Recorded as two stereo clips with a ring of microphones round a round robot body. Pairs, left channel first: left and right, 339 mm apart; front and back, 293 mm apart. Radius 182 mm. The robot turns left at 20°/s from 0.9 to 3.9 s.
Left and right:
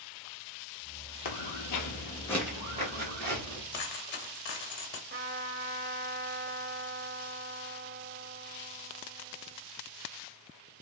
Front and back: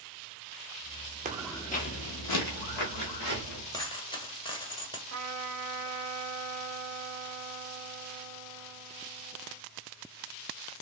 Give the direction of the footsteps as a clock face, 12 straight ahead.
8 o'clock.